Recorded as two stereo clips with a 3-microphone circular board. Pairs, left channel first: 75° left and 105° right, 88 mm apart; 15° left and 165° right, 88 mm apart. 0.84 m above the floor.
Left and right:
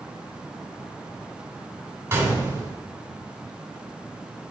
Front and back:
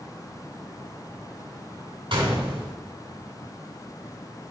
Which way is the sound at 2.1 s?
160° right.